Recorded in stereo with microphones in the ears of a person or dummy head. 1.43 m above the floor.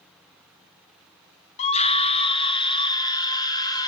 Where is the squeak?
I don't hear a squeak.